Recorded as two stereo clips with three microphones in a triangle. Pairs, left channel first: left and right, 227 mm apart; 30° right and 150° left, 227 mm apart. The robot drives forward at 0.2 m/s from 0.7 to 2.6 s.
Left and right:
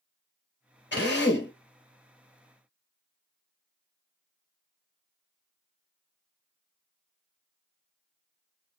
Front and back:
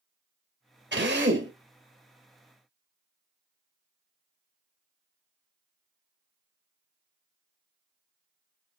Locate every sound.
0.9 s a drill: 120° left, 1.6 m; by 1.5 s 125° left, 1.7 m